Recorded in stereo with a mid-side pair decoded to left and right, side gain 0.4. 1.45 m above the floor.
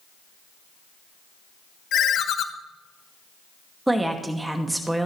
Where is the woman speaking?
15° right, 2 m.